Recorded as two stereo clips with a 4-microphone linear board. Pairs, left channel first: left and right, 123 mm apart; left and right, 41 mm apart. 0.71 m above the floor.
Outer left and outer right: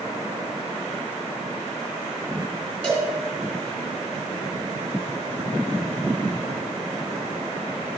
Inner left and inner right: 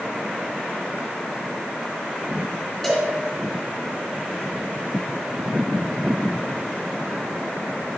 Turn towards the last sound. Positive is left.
turn(degrees=5)  # may be behind; listen again after turning